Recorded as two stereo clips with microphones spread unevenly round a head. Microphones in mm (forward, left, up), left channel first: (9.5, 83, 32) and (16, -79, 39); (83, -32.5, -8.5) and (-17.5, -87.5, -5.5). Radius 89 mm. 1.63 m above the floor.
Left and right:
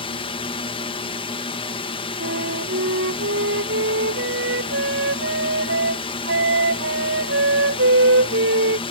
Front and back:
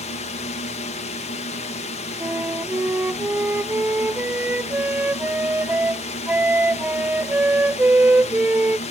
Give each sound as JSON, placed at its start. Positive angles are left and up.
{"t": 0.0, "sound": "a drone", "azimuth_deg": 40}
{"t": 2.2, "sound": "a flute", "azimuth_deg": -75}